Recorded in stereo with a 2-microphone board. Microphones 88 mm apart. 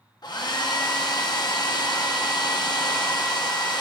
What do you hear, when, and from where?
0.2 s a hair dryer: 55° left (ahead or behind), 0.8 m